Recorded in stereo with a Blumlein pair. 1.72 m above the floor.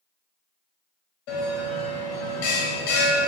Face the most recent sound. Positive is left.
turn(degrees=45)